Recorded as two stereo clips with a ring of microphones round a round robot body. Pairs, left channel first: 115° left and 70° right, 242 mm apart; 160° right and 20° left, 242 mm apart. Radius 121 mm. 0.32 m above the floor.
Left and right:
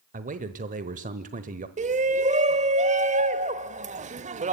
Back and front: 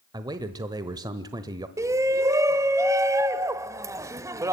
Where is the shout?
45° right, 0.9 m.